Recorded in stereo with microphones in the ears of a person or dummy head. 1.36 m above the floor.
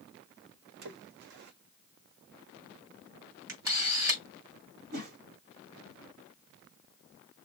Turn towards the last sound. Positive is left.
turn(degrees=-50)  # may be behind; listen again after turning